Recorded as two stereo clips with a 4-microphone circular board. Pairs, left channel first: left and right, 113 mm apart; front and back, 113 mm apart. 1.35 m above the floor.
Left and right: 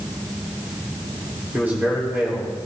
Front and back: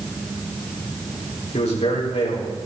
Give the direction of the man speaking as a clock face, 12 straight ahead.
1 o'clock.